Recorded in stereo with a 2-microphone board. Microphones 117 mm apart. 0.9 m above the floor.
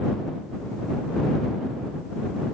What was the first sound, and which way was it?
Only background noise.